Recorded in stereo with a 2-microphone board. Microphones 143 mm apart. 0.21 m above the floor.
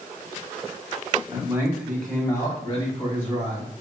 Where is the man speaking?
25° right (ahead or behind), 1.0 m; by 3.7 s 55° left (ahead or behind), 1.5 m.